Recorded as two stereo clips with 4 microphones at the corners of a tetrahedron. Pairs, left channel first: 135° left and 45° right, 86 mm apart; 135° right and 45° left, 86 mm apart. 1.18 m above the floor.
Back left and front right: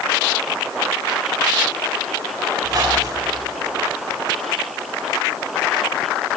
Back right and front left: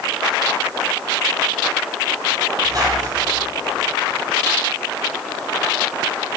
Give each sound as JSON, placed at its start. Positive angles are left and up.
{"t": 2.6, "sound": "a squeak", "azimuth_deg": 0, "distance_m": 3.0}